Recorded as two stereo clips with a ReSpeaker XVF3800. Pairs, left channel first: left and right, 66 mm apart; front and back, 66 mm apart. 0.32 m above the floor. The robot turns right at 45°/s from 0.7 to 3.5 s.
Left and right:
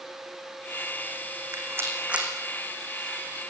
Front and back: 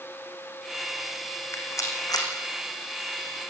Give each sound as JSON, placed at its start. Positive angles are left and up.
{"t": 1.5, "sound": "a rattle", "azimuth_deg": -50, "distance_m": 5.5}